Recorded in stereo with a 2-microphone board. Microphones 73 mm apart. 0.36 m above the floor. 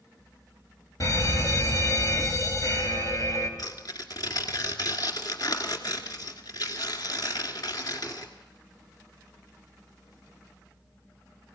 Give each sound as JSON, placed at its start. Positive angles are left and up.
{"t": 1.0, "sound": "a fire alarm", "side_deg": 50, "distance_m": 3.5}
{"t": 3.6, "sound": "tearing paper", "side_deg": 60, "distance_m": 2.0}